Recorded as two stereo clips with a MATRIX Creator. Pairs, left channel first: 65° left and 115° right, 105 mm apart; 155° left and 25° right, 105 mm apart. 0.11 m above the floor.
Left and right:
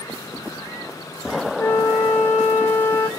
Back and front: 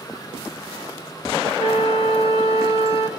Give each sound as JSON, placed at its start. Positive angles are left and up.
{"t": 1.6, "sound": "a flute", "azimuth_deg": 140, "distance_m": 1.5}